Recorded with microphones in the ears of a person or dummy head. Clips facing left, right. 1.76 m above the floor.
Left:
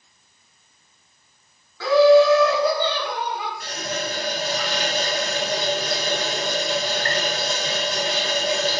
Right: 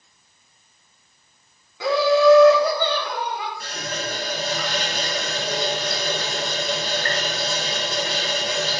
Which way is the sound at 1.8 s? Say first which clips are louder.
Left 4 dB; 20° right (ahead or behind).